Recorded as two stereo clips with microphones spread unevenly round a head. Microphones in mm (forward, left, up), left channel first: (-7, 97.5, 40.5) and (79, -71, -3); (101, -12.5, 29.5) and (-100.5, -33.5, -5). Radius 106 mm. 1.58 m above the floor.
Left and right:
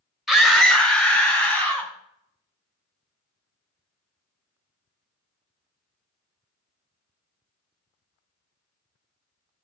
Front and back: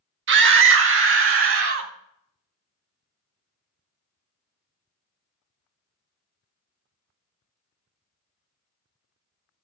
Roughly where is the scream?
Behind right.